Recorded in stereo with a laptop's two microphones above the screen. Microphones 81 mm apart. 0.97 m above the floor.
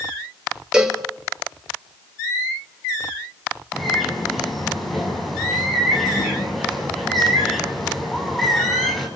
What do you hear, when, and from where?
0.7 s a cowbell: 10° right (ahead or behind), 3.5 m
3.7 s a bird: centre (ahead or behind), 7 m